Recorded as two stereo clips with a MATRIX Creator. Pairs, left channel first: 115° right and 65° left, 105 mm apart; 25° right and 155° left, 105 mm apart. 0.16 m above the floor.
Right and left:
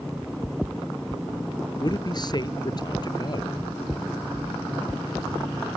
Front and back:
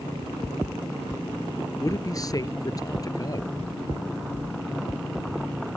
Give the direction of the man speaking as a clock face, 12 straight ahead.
2 o'clock.